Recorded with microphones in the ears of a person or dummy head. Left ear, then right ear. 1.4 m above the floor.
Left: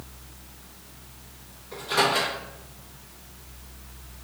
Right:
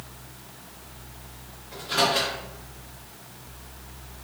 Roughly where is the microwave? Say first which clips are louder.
Even; left.